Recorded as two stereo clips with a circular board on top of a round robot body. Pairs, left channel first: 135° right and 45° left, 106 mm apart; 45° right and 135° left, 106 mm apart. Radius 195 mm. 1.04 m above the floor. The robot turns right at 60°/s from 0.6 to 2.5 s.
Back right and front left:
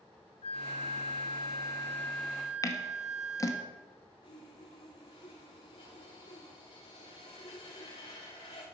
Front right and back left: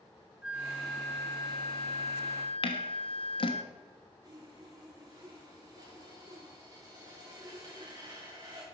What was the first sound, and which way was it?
A flute, 145° right.